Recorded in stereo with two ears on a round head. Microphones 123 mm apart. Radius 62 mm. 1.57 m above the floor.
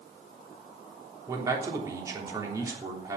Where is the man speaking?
25° right (ahead or behind), 3 m.